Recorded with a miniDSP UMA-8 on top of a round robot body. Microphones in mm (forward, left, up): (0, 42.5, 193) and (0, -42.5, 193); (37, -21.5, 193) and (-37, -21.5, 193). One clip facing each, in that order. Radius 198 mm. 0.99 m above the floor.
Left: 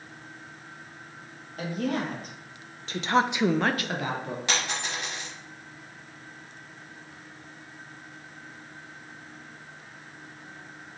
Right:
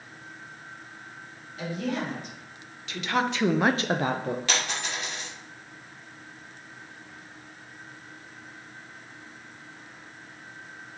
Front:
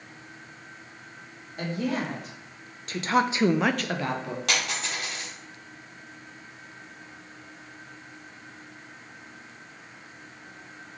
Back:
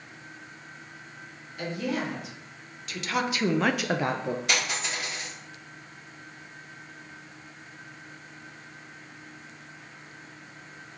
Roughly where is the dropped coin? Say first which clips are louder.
Even, even; ahead.